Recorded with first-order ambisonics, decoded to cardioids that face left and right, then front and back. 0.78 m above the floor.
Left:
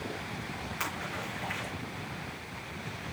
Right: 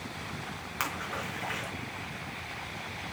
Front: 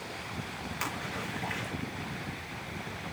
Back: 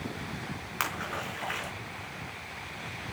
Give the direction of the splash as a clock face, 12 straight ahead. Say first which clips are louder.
Right 3 dB, back 4 dB; 5 o'clock.